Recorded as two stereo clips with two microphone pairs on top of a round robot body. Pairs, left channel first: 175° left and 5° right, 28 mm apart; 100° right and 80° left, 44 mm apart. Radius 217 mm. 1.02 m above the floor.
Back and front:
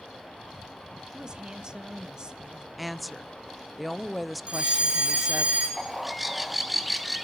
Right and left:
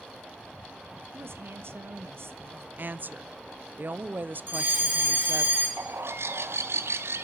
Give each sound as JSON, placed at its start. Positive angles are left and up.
{"t": 1.1, "sound": "a woman speaking", "azimuth_deg": 55, "distance_m": 1.6}
{"t": 2.8, "sound": "a woman speaking", "azimuth_deg": 90, "distance_m": 0.9}
{"t": 4.5, "sound": "a fire alarm", "azimuth_deg": 40, "distance_m": 7.5}
{"t": 5.8, "sound": "a bird", "azimuth_deg": 85, "distance_m": 1.4}